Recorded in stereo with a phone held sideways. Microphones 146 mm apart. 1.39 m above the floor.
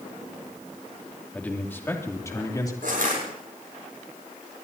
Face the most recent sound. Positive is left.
turn(degrees=-70)  # may be behind; listen again after turning